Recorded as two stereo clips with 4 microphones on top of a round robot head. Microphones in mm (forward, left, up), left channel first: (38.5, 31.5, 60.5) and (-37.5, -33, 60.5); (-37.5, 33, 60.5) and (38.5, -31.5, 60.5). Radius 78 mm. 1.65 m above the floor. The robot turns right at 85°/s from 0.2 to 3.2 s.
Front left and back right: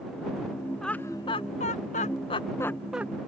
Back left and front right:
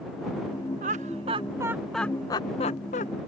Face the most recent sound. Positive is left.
turn(degrees=155)